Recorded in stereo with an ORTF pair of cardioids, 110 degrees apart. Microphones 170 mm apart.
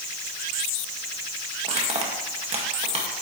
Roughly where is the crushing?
Ahead right.